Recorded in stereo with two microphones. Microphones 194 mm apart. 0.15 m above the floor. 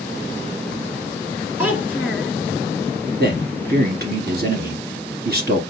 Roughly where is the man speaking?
Right.